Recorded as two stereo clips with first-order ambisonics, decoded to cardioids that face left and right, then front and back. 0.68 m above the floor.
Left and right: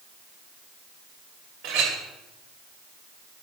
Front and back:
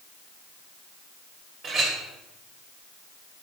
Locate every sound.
1.6 s a clink: 115° right, 2.0 m